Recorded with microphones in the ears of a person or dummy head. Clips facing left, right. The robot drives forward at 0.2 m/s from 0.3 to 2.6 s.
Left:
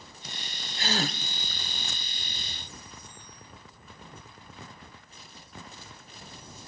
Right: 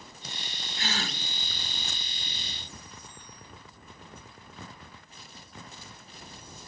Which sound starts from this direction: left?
A gasp, at 0.8 s.